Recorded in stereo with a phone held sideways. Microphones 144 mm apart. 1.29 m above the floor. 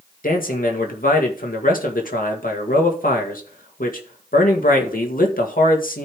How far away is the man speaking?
About 1.9 m.